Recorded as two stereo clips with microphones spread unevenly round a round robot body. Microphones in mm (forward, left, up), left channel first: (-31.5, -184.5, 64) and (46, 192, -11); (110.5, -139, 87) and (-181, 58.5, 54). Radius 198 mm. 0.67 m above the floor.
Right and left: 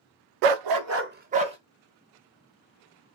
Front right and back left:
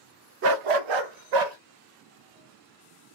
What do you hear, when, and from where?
0.4 s a dog barking: 85° left, 0.5 m; by 1.6 s 155° left, 1.4 m